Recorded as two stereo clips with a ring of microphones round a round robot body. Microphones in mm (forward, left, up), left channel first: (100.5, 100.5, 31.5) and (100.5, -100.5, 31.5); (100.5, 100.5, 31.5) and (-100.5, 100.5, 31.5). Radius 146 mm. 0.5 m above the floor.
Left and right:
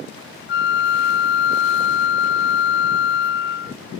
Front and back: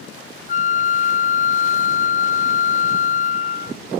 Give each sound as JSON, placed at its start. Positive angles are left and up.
{"t": 0.5, "sound": "a flute", "azimuth_deg": 55}